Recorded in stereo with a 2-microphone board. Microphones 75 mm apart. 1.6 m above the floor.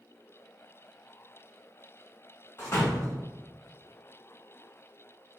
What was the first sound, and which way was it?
A door slam, 30° left (ahead or behind).